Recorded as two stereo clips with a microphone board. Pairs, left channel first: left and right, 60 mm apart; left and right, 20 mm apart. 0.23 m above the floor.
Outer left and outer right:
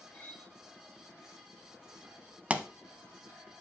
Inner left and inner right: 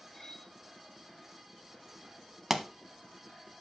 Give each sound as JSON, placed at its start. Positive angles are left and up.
{"t": 0.1, "sound": "cutlery clinking", "side_deg": 20, "distance_m": 1.7}
{"t": 2.5, "sound": "a pop", "side_deg": -20, "distance_m": 0.7}